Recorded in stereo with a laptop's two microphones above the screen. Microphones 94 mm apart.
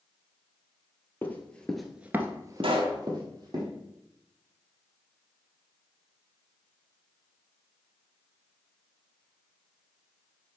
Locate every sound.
1.2 s running footsteps: 20° left (ahead or behind), 1.5 m; by 3.6 s 45° right (ahead or behind), 2.5 m
2.6 s a pop: 70° right (ahead or behind), 1.4 m